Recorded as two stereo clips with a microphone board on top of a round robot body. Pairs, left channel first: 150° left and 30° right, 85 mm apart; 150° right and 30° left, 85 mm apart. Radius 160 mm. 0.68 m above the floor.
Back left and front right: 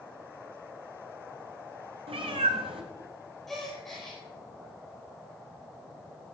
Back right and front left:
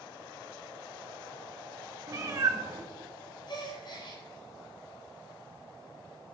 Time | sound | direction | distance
2.1 | a cat meowing | 25° right | 0.8 m
3.5 | a gasp | 125° right | 5.5 m